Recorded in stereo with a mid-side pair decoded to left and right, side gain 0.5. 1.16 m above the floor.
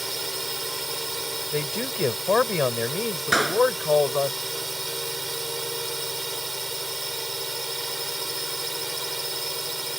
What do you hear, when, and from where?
0.0 s a drone: 15° right
1.5 s a man speaking: 20° left
3.3 s a clap: 10° right